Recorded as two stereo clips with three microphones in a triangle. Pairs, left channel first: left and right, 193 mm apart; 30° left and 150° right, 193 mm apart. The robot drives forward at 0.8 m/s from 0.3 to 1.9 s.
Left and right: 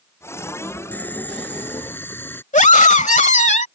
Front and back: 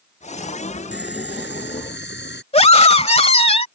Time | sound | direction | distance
0.9 | boiling | 10° left | ?
2.5 | a scream | 70° left | ?